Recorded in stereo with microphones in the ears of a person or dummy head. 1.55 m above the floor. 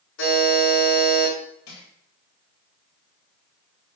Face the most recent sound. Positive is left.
turn(degrees=85)